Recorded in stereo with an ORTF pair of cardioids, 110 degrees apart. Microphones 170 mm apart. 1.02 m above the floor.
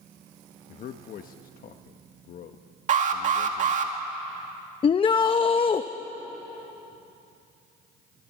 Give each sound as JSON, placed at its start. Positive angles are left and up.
{"t": 0.7, "sound": "a man speaking", "azimuth_deg": 55, "distance_m": 1.1}
{"t": 2.9, "sound": "an alarm", "azimuth_deg": -50, "distance_m": 2.0}
{"t": 4.8, "sound": "a shout", "azimuth_deg": 30, "distance_m": 0.8}